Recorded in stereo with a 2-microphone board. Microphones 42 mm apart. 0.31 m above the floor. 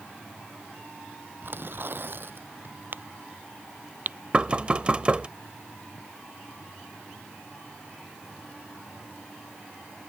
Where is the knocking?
30° right (ahead or behind).